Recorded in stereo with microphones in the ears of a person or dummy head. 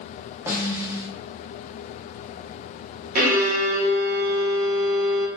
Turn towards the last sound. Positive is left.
turn(degrees=-50)  # may be behind; listen again after turning